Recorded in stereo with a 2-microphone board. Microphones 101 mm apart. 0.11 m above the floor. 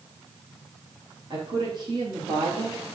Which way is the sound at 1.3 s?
40° right (ahead or behind).